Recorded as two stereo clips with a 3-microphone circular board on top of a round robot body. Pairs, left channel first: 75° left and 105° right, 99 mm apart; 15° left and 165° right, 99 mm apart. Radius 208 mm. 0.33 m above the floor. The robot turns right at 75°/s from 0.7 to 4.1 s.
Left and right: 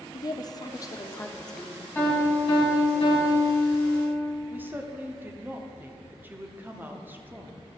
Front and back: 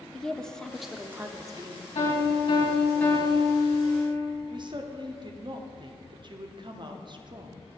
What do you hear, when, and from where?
0.1 s a woman speaking: 95° left, 1.0 m; by 1.9 s 175° right, 1.0 m
1.9 s a piano: 10° left, 3.5 m; by 4.2 s 170° left, 3.5 m
4.5 s a woman speaking: 170° right, 1.1 m